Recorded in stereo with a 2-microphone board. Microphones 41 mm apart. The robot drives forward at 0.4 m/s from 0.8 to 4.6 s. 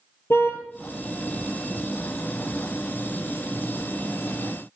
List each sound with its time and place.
0.3 s a car horn: 75° left (ahead or behind), 2.5 m